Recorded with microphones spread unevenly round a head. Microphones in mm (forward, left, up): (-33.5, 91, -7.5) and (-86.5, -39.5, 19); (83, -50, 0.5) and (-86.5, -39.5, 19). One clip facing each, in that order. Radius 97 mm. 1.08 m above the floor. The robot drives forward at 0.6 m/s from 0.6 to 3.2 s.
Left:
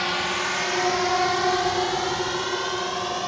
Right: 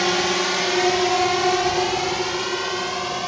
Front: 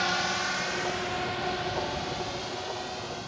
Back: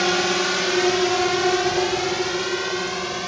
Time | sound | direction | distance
0.0 | a drone | 155° right | ?